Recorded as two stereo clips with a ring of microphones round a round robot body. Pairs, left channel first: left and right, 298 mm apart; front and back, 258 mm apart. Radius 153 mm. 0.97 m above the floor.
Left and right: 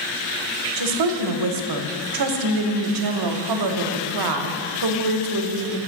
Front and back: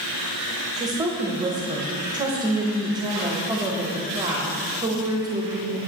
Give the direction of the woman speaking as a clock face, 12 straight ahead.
3 o'clock.